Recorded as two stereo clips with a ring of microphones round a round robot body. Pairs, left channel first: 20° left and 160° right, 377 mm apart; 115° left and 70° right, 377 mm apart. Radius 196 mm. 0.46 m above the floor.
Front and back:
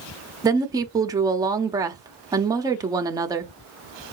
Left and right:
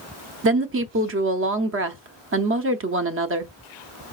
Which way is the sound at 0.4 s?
85° right.